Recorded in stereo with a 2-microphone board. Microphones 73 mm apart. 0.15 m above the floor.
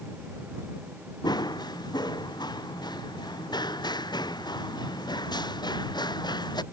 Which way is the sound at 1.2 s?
75° left (ahead or behind).